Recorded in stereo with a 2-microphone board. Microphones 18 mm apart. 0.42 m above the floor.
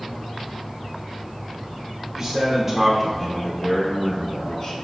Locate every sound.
2.2 s a man speaking: 25° right (ahead or behind), 1.0 m; by 4.7 s 45° left (ahead or behind), 1.2 m